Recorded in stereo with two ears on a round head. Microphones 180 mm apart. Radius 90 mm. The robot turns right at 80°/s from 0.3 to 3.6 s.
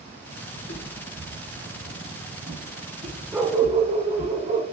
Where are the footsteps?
55° left (ahead or behind), 3.5 m; by 4.3 s centre (ahead or behind), 7 m.